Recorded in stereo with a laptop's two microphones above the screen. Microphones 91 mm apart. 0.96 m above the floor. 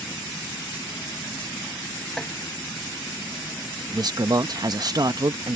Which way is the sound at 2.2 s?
5° left (ahead or behind).